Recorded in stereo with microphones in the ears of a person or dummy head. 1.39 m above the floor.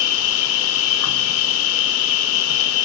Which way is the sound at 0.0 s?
75° left (ahead or behind).